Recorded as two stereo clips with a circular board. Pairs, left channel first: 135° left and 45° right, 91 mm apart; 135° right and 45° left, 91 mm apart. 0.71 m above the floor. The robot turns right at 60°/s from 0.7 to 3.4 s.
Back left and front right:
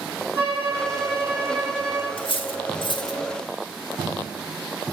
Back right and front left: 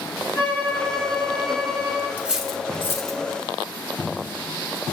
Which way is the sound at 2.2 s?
120° left.